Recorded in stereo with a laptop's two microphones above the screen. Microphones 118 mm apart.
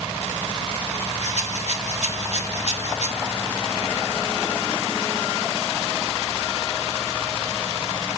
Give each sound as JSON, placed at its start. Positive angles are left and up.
{"t": 1.2, "sound": "a rattle", "side_deg": 80, "distance_m": 1.8}